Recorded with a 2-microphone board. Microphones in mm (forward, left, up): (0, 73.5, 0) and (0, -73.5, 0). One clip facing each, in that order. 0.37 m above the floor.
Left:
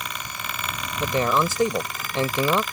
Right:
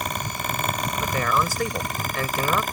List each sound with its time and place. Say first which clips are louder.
1.0 s a man speaking: left 3 dB; 25° left (ahead or behind)